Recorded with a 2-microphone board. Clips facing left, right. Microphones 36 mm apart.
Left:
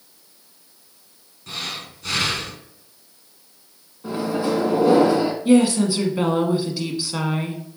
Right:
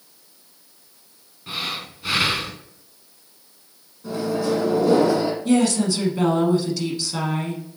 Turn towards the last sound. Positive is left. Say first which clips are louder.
# left 4 dB
turn(degrees=20)  # may be behind; listen again after turning